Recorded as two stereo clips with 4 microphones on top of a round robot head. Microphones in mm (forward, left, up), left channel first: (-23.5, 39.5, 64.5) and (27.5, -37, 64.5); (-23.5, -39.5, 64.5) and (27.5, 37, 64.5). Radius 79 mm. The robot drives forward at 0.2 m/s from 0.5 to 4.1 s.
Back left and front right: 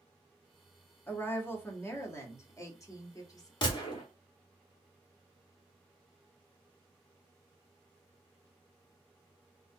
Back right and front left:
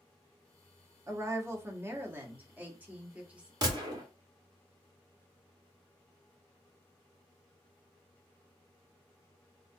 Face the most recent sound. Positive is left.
turn(degrees=105)